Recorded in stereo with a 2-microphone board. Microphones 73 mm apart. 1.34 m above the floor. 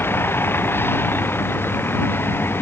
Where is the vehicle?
30° left (ahead or behind).